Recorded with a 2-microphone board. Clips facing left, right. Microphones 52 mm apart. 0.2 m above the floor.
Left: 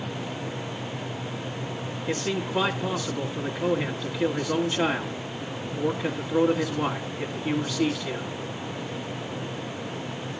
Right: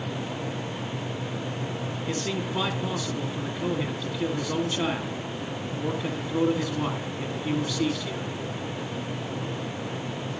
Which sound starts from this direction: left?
A man speaking, at 2.1 s.